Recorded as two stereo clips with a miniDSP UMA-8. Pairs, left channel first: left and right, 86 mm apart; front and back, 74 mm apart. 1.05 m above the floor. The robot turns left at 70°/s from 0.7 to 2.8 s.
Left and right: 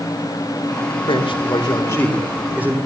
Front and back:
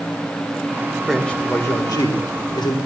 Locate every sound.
1.1 s a man speaking: 90° left, 3.5 m; by 2.8 s 25° right, 3.5 m